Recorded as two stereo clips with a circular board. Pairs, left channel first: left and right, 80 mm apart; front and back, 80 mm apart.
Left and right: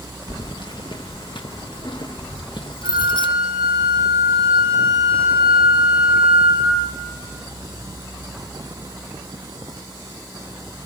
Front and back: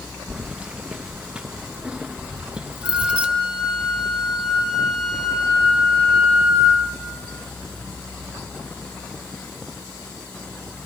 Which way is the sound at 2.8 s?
100° right.